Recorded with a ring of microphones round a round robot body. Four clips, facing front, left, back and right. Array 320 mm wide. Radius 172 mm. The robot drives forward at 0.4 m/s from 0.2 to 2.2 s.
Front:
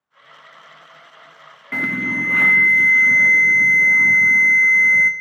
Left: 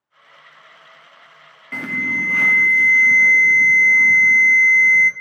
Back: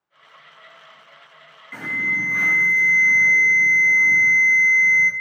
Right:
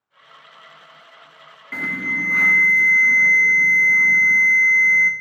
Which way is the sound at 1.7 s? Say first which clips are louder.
Left 2 dB, front 4 dB; 10° left.